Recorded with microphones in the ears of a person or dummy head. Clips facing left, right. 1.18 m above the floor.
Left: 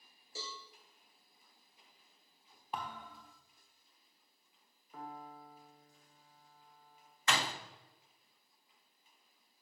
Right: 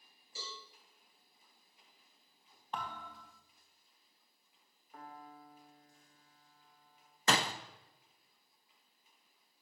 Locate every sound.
0.3 s a cowbell: 40° left (ahead or behind), 3 m
2.7 s a thud: 10° left (ahead or behind), 1.3 m
4.9 s a piano: 80° left, 1.5 m
7.3 s a door slam: 30° right (ahead or behind), 0.6 m